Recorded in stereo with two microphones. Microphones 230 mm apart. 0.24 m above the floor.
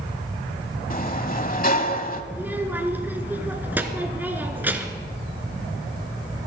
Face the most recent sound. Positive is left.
turn(degrees=-10)  # may be behind; listen again after turning